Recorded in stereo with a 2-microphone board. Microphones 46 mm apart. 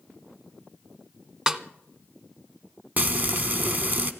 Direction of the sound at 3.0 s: 40° right (ahead or behind).